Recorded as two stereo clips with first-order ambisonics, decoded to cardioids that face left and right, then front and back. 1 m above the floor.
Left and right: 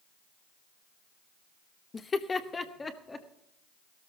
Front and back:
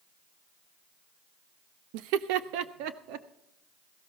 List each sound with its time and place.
1.9 s laughter: 165° left, 0.7 m; by 3.3 s 170° left, 1.4 m